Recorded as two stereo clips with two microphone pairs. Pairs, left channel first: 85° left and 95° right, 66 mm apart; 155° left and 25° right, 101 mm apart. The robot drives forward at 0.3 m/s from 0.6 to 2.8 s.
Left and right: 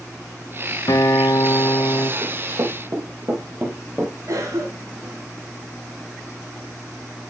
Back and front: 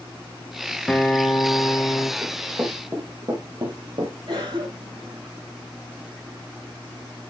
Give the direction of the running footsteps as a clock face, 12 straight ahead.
3 o'clock.